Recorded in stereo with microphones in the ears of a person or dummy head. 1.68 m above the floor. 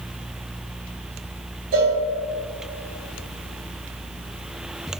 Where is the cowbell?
50° right (ahead or behind), 1.1 m.